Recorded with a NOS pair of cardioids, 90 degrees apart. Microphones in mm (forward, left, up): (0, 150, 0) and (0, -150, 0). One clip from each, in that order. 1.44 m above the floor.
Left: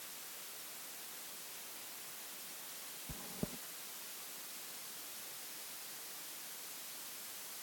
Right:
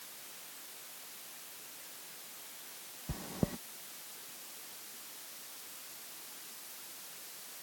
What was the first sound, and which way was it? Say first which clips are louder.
Chewing: right 8 dB; 60° right.